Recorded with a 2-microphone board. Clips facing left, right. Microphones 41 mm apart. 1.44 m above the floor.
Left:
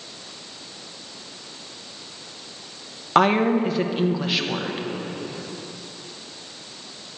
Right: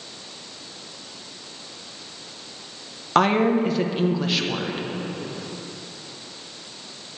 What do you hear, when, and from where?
3.1 s a woman speaking: 5° left (ahead or behind), 0.6 m